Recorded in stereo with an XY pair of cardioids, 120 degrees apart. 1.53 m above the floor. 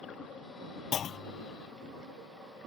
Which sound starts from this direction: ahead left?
A clunk, at 0.9 s.